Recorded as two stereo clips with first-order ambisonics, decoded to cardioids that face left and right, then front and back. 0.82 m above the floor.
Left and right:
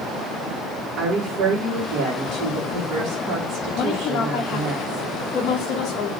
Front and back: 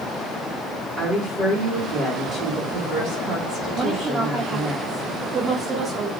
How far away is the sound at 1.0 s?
About 1.7 m.